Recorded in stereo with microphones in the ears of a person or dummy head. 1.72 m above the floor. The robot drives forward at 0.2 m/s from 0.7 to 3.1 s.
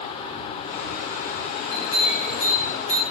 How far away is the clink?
About 3 m.